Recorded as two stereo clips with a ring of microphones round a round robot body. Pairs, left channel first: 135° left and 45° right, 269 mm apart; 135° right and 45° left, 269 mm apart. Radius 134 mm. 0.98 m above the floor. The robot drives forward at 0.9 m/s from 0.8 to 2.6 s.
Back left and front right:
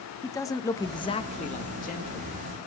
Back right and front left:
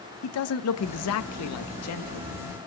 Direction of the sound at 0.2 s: 150° right.